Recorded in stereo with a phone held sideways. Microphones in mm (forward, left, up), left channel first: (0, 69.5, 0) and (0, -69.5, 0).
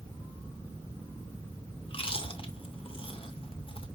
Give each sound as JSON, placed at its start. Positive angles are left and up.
{"t": 1.9, "sound": "chewing", "side_deg": 40, "distance_m": 1.3}